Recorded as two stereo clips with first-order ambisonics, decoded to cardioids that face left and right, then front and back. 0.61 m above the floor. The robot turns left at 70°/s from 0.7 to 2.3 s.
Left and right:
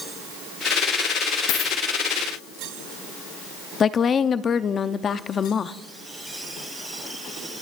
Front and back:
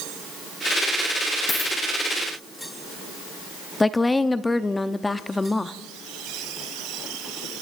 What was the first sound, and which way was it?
A dropped coin, 75° left.